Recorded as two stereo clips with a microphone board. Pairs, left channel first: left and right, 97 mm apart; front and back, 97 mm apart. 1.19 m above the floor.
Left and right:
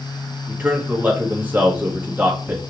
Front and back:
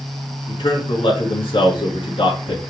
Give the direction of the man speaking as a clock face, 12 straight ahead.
1 o'clock.